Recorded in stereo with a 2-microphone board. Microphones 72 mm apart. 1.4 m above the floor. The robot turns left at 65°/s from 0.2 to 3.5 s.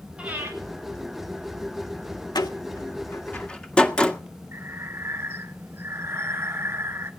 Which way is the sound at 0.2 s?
15° right (ahead or behind).